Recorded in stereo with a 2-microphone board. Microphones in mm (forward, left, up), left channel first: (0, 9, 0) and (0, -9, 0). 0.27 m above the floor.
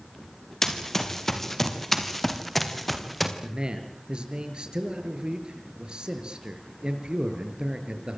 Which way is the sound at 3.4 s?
75° right (ahead or behind).